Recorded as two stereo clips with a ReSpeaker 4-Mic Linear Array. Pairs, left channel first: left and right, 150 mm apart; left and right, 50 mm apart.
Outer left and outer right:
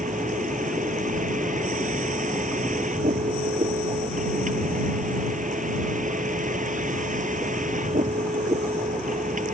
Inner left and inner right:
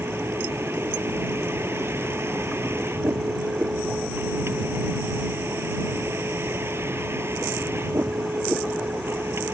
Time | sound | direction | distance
0.0 | a vehicle | 60° right (ahead or behind) | ?